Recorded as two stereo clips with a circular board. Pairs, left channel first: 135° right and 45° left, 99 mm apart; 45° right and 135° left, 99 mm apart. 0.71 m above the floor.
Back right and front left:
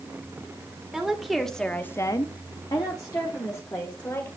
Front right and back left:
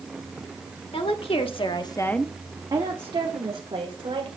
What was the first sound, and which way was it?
A woman speaking, 40° right.